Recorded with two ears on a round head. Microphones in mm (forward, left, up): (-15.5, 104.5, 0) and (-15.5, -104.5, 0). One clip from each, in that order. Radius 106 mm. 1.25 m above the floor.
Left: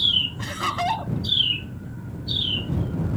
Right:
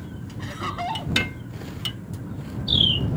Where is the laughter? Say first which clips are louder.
Left 5 dB; 30° left (ahead or behind).